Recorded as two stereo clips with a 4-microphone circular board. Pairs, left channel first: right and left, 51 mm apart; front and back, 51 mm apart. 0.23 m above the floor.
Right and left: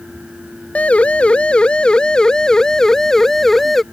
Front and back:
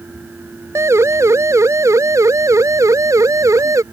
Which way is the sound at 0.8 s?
155° right.